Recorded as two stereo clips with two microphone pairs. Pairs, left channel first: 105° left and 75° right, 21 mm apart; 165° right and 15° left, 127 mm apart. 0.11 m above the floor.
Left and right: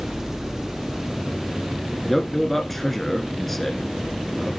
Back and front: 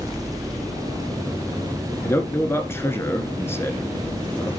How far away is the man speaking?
About 1.3 m.